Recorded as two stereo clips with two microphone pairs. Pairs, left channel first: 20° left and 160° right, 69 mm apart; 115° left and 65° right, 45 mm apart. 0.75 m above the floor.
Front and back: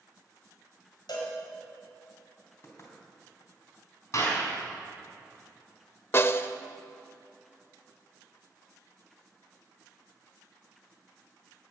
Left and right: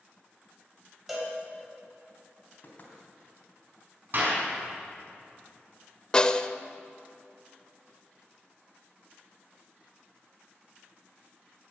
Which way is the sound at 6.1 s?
55° left.